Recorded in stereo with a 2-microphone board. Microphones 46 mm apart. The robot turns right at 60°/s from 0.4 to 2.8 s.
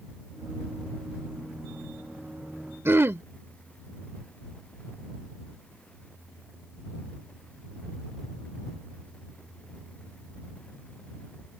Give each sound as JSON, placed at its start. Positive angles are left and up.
{"t": 2.9, "sound": "throat clearing", "side_deg": -60}